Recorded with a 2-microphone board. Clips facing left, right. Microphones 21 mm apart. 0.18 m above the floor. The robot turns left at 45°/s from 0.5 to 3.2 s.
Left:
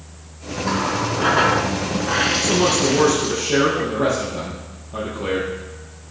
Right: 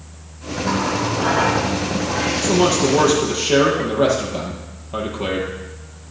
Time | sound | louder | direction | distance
0.6 | a running tap | right 1 dB | 170° left | 1.3 m
2.4 | a man speaking | right 1 dB | 5° right | 5 m